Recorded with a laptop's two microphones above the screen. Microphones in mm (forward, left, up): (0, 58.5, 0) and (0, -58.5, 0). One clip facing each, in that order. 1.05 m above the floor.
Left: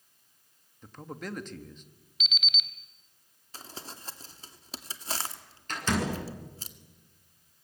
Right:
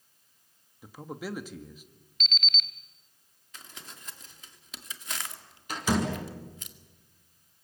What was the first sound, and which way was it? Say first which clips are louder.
A man speaking: right 2 dB; 10° right (ahead or behind).